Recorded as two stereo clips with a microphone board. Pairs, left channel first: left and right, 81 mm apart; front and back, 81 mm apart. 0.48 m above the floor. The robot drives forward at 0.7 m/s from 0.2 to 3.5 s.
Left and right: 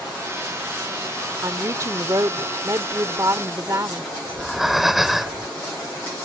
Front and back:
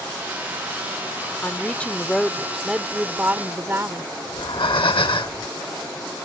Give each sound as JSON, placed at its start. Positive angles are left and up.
{"t": 1.4, "sound": "a woman speaking", "azimuth_deg": -55}
{"t": 4.3, "sound": "breathing", "azimuth_deg": -5}